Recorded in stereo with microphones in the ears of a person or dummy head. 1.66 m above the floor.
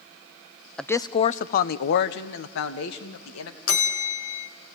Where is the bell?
80° left, 1.8 m.